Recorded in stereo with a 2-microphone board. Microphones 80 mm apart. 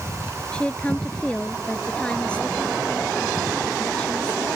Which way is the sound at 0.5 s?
15° left (ahead or behind).